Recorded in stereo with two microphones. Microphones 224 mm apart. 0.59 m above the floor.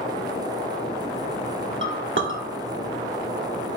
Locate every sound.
1.8 s a clink: 60° right (ahead or behind), 0.7 m